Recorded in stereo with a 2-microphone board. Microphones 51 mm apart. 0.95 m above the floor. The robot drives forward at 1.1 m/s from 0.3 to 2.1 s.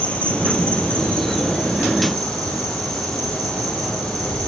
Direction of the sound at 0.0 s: 25° left (ahead or behind).